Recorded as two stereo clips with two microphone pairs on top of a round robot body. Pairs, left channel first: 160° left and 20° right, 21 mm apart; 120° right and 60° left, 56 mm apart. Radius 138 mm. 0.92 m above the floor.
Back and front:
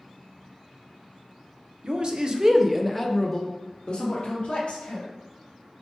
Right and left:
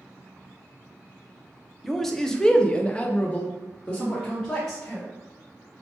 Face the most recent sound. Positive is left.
turn(degrees=165)